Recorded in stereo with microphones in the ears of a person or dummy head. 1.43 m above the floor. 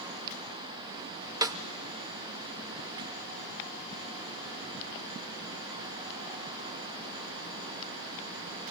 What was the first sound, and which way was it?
A snare drum, 20° right (ahead or behind).